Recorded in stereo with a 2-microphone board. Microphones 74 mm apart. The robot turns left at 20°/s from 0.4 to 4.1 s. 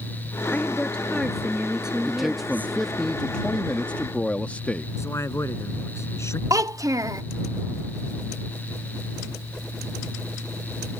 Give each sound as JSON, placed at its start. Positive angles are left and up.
{"t": 0.5, "sound": "a woman speaking", "azimuth_deg": 20}
{"t": 2.0, "sound": "a man speaking", "azimuth_deg": -170}
{"t": 5.0, "sound": "a man speaking", "side_deg": 40}
{"t": 6.5, "sound": "a child speaking", "side_deg": -50}